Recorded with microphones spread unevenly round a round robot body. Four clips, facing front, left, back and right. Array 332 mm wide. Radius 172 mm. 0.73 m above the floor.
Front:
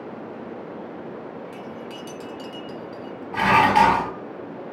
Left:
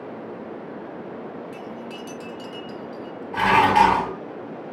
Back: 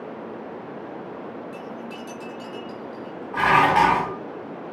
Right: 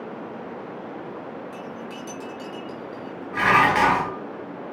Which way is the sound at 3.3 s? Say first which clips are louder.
Left 2 dB, front 1 dB; 10° left.